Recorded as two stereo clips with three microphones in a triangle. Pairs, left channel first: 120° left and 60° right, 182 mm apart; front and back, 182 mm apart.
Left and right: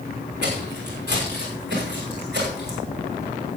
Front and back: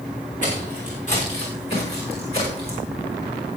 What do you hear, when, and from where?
0.4 s footsteps: 45° right, 7 m; by 2.8 s 55° right, 6.5 m